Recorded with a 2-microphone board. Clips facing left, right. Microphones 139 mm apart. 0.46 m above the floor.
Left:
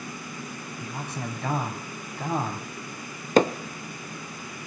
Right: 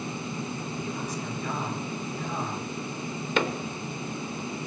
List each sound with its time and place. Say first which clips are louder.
0.8 s a man speaking: right 2 dB; 65° left (ahead or behind), 3 m
3.4 s hammering: left 8 dB; 40° left (ahead or behind), 0.7 m